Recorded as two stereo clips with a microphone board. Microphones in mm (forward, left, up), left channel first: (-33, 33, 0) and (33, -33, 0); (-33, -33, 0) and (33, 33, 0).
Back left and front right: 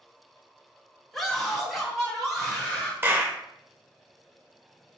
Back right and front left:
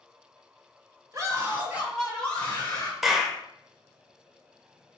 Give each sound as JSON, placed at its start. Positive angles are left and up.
{"t": 1.1, "sound": "a scream", "azimuth_deg": 50, "distance_m": 1.3}
{"t": 3.0, "sound": "a clap", "azimuth_deg": -40, "distance_m": 0.7}